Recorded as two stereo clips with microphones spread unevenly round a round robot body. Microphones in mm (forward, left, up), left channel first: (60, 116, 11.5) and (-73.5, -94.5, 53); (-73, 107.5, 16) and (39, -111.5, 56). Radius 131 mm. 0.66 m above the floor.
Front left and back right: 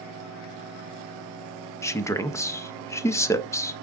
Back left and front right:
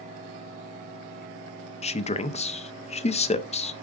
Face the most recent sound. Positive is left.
turn(degrees=110)